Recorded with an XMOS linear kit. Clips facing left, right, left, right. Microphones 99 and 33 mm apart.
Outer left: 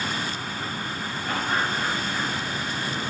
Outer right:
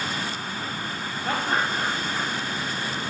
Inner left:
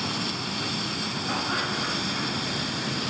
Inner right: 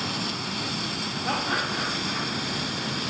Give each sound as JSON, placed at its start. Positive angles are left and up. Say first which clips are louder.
{"t": 1.2, "sound": "laughter", "louder": "outer right 1 dB, inner right 2 dB", "side_deg": -75, "distance_m": 3.5}